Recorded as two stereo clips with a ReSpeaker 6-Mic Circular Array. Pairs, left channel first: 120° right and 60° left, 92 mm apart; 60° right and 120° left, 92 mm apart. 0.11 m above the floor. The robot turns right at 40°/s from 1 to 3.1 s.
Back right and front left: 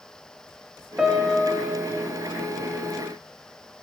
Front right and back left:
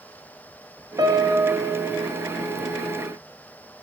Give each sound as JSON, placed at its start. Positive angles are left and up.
{"t": 1.0, "sound": "a piano", "azimuth_deg": 140, "distance_m": 0.5}